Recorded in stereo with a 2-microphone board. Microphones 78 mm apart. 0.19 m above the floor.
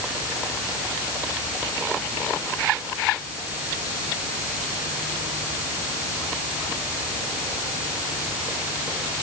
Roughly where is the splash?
No splash in this recording.